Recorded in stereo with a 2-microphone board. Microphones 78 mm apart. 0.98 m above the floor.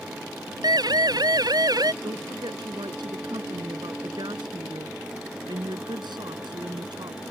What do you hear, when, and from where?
0.6 s a siren: 65° right (ahead or behind); by 1.9 s 60° right (ahead or behind)
2.0 s a woman speaking: 75° right (ahead or behind)